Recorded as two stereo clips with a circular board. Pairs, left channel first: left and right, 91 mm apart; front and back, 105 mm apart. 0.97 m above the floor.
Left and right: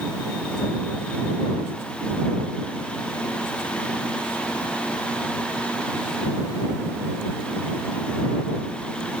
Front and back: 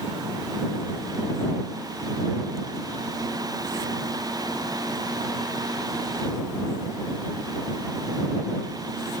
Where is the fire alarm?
I don't hear a fire alarm.